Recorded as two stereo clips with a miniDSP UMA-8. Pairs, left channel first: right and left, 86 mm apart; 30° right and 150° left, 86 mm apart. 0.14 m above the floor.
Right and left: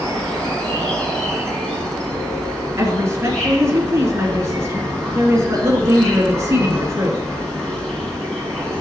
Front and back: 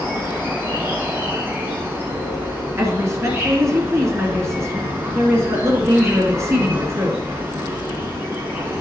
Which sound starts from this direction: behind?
An insect, at 0.0 s.